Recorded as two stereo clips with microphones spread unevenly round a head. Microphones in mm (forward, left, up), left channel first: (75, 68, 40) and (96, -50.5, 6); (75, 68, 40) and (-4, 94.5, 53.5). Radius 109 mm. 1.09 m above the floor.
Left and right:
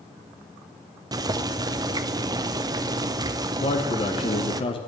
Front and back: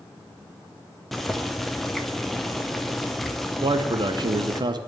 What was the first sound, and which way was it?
Boiling, 95° right.